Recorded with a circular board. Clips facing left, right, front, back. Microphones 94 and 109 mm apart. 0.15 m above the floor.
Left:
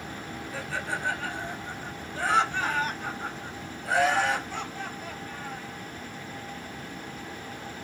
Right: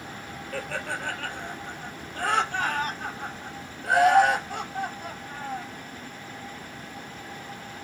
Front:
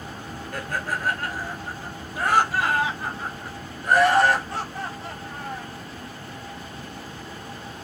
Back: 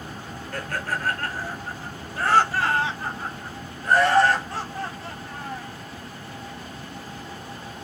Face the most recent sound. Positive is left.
turn(degrees=-70)